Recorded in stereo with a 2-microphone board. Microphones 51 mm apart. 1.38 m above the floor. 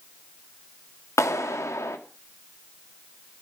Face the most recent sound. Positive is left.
turn(degrees=80)